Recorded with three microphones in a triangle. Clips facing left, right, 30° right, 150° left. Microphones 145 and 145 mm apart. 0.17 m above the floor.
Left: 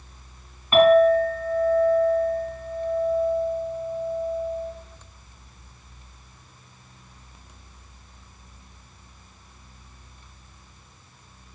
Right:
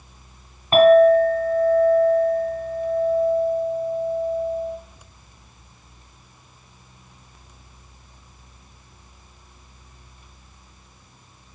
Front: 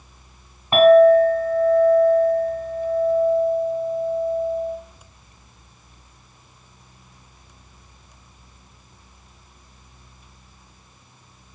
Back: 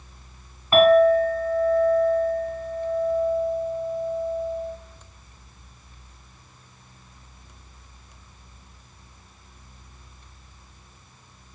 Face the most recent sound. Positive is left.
turn(degrees=-75)